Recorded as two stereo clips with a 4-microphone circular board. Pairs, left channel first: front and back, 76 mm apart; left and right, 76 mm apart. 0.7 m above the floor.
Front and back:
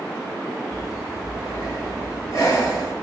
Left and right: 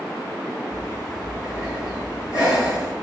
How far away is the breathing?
About 4.5 m.